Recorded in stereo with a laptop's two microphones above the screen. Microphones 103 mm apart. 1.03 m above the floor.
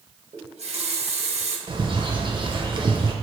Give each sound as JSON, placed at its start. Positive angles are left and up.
{"t": 0.3, "sound": "a running tap", "side_deg": -80, "distance_m": 0.6}
{"t": 1.7, "sound": "a bird", "side_deg": -50, "distance_m": 0.5}